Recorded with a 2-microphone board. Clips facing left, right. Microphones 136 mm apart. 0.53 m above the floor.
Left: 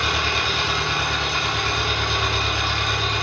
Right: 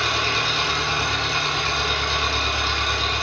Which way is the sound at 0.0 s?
60° left (ahead or behind).